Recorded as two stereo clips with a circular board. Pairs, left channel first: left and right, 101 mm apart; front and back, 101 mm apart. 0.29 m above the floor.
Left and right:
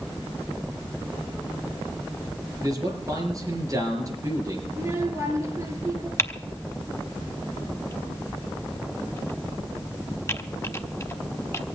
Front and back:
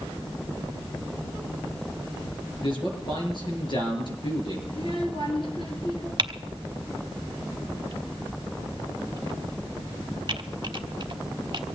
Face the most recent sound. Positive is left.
turn(degrees=150)